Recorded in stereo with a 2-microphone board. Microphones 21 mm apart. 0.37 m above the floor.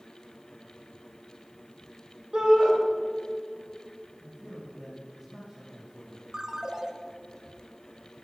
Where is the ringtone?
35° right (ahead or behind), 0.7 m.